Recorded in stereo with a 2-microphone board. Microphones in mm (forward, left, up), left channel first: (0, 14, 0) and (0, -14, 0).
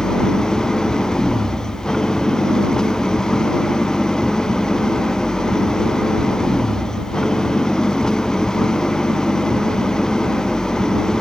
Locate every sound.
0.0 s an engine running: 20° left (ahead or behind)